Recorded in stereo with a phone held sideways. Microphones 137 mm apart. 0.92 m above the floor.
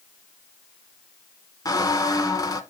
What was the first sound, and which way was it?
A squeak, 25° left (ahead or behind).